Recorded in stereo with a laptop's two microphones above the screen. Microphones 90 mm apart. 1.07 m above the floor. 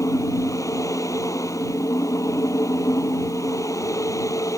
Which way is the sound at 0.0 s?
35° left (ahead or behind).